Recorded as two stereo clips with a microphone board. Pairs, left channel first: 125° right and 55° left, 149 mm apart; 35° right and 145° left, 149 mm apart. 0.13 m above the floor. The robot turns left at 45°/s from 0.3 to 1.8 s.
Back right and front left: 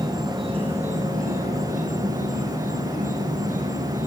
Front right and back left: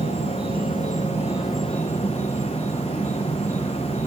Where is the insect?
110° left, 5.5 m; by 4.1 s 45° left, 5.5 m.